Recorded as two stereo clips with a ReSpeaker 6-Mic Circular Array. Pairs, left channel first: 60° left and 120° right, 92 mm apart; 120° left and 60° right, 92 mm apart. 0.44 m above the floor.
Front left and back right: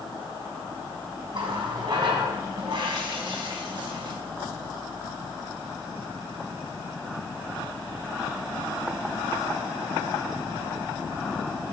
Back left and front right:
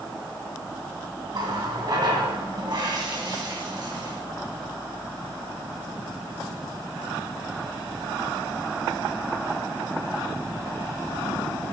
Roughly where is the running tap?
Right.